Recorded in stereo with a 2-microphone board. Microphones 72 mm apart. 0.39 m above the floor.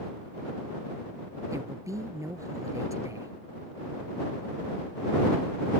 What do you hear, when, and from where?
1.5 s a woman speaking: 45° right (ahead or behind)